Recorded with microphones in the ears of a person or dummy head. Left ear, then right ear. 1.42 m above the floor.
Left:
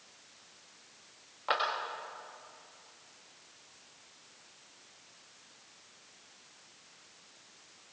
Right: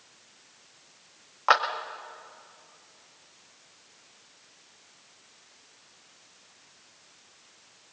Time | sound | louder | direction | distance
1.5 | a clap | right 10 dB | 50° right (ahead or behind) | 1.6 m